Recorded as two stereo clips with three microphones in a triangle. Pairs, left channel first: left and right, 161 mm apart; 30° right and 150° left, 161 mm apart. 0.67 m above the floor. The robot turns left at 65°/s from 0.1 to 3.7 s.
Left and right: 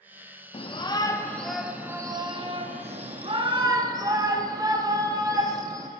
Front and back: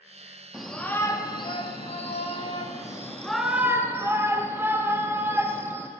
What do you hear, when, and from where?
0.5 s a shout: 65° left, 0.6 m; by 5.9 s 140° right, 0.6 m